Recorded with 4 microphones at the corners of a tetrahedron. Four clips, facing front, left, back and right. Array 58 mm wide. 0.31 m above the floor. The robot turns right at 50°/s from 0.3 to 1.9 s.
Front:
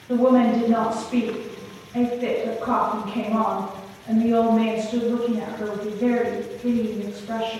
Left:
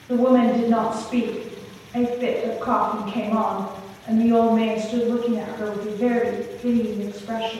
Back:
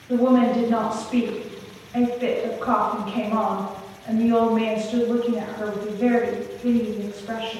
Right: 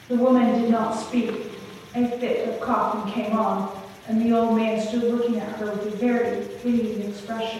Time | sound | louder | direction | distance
0.1 | a woman speaking | left 1 dB, front 1 dB | 65° left | 1.2 m